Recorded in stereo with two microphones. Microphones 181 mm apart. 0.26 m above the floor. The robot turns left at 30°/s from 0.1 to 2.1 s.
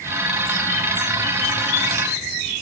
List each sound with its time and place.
Only background noise.